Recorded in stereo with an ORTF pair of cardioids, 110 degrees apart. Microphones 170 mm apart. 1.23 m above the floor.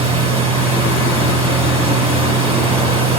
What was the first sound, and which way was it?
A machine running, 30° right.